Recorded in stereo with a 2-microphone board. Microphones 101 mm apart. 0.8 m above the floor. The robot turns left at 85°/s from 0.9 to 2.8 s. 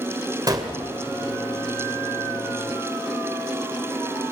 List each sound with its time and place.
0.5 s a gunshot: 40° right (ahead or behind), 1.9 m